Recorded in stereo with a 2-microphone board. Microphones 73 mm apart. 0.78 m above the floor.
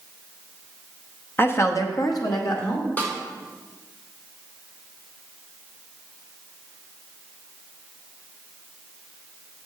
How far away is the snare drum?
About 1.7 m.